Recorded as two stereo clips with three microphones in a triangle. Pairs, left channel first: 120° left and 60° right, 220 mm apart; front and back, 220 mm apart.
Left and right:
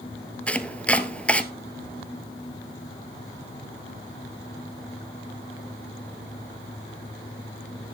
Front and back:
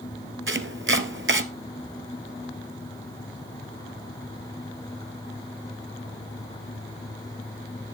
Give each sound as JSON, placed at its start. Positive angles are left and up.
{"t": 0.5, "sound": "chopping", "azimuth_deg": -155, "distance_m": 1.0}